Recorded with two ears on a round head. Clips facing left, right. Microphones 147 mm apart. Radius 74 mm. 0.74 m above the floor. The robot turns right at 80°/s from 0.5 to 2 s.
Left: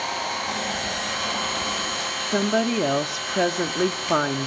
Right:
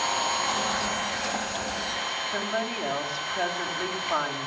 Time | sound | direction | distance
0.0 | an engine running | 5° left | 6 m
2.3 | a woman speaking | 55° left (ahead or behind) | 1.5 m